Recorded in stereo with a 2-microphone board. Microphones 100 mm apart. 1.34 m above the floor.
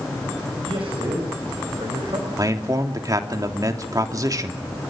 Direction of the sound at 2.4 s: 40° right (ahead or behind).